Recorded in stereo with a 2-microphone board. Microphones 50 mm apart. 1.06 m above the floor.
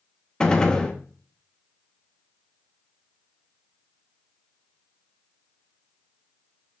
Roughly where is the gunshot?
Centre.